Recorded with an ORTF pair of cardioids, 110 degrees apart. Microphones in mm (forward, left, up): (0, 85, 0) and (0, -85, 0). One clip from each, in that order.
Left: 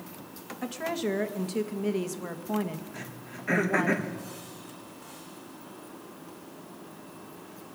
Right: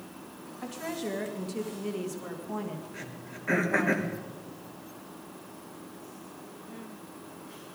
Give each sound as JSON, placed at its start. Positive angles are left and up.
{"t": 0.6, "sound": "a woman speaking", "azimuth_deg": 30, "distance_m": 2.0}
{"t": 2.9, "sound": "throat clearing", "azimuth_deg": 0, "distance_m": 3.0}